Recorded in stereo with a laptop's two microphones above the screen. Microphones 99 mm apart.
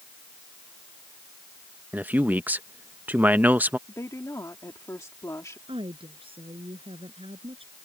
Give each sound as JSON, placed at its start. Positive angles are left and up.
{"t": 1.9, "sound": "a man speaking", "side_deg": -15}
{"t": 3.9, "sound": "a woman speaking", "side_deg": 30}
{"t": 5.7, "sound": "a woman speaking", "side_deg": -65}